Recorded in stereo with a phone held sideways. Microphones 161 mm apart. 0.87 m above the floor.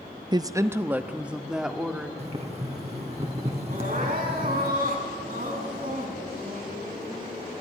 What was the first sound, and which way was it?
A woman speaking, 30° right (ahead or behind).